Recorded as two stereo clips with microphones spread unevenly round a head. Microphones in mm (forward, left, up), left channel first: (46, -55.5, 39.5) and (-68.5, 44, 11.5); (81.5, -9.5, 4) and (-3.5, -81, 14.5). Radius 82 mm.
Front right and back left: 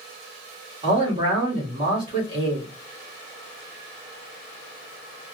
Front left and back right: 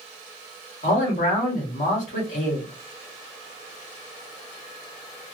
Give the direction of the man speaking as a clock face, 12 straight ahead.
9 o'clock.